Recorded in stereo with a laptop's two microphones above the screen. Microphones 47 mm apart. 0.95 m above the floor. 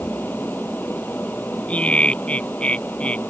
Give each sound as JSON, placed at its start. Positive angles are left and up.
{"t": 0.0, "sound": "a fan", "side_deg": 45}
{"t": 1.7, "sound": "laughter", "side_deg": 30}